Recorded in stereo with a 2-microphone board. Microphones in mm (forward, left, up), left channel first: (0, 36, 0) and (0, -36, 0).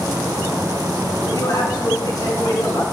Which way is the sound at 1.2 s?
50° left (ahead or behind).